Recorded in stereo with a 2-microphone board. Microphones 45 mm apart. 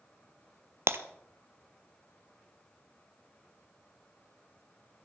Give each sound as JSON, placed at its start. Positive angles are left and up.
{"t": 0.9, "sound": "breaking glass", "side_deg": -65, "distance_m": 1.0}